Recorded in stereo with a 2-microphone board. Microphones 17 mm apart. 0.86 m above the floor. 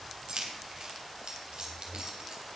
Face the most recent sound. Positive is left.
turn(degrees=-55)  # may be behind; listen again after turning